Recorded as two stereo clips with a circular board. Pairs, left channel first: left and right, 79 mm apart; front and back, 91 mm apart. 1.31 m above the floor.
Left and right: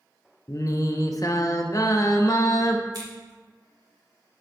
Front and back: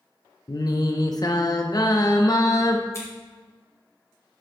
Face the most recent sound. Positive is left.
turn(degrees=-55)